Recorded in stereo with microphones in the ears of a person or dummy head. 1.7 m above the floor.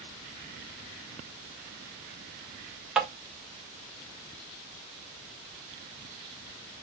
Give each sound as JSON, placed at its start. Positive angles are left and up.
{"t": 3.0, "sound": "tapping", "side_deg": -5, "distance_m": 0.8}